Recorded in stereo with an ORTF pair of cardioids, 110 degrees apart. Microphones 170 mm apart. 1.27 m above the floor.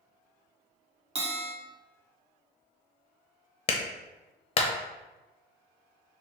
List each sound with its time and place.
1.1 s a bell: 40° right, 1.6 m
3.7 s a clap: 35° left, 0.8 m